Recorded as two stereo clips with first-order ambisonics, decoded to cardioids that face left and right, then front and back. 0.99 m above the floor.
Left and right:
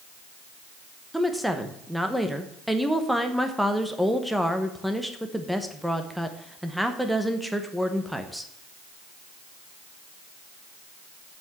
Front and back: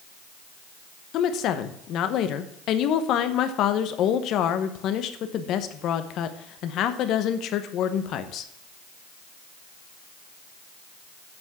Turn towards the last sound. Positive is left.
turn(degrees=0)